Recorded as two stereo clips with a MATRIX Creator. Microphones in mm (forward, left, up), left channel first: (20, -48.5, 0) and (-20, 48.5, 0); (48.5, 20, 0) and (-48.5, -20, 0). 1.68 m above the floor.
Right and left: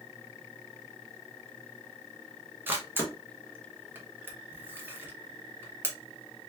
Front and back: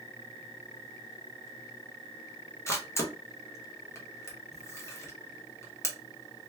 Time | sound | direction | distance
2.7 | a camera shutter | 60° left | 0.9 m